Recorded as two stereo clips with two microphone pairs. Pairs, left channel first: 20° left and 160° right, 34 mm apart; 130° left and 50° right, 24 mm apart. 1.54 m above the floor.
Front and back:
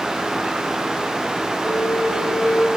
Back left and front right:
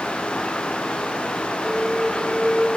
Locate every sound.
1.6 s a flute: 35° left, 2 m